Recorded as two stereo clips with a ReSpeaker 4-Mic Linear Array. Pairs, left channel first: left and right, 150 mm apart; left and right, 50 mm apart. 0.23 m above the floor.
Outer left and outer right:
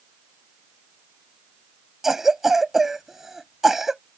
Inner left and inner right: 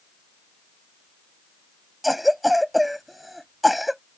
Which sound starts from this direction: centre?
A cough, at 2.0 s.